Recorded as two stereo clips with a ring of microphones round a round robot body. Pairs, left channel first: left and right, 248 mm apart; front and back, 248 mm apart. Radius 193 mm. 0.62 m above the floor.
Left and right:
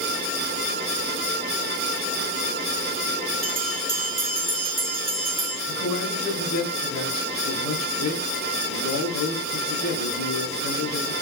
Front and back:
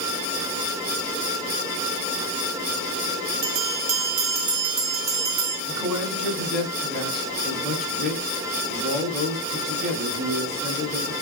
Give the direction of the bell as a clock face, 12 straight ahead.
5 o'clock.